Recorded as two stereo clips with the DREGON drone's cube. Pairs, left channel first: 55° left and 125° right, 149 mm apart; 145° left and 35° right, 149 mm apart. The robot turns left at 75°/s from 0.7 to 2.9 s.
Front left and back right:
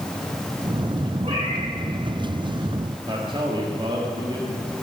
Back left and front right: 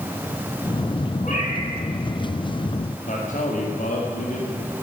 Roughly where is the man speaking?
Behind.